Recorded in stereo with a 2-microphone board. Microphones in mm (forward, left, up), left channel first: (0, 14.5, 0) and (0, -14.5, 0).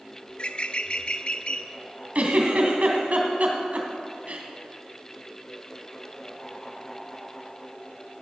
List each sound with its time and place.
0.3 s a bird: 40° left (ahead or behind), 0.6 m
2.1 s a giggle: 50° right (ahead or behind), 2 m